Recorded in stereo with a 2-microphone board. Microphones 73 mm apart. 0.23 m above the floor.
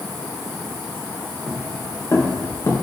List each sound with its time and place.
1.5 s footsteps: 50° left (ahead or behind), 4 m; by 2.7 s 45° left (ahead or behind), 4.5 m